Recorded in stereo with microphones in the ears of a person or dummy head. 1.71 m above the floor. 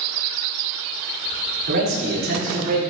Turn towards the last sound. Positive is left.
turn(degrees=-50)  # may be behind; listen again after turning